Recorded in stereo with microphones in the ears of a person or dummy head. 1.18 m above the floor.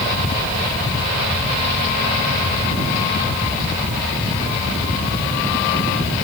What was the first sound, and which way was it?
Only background noise.